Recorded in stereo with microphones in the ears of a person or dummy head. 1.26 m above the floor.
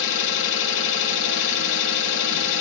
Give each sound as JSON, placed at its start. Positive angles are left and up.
{"t": 0.0, "sound": "an engine running", "side_deg": 70, "distance_m": 1.4}